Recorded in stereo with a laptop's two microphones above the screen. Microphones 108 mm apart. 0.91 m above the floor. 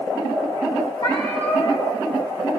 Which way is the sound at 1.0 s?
55° left (ahead or behind).